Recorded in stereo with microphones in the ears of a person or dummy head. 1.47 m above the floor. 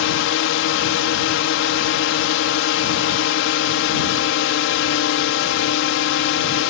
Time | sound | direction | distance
0.0 | a drone | 60° left (ahead or behind) | ?